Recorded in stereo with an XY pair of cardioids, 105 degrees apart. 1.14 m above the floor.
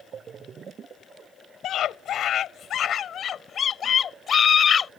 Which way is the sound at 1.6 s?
65° left.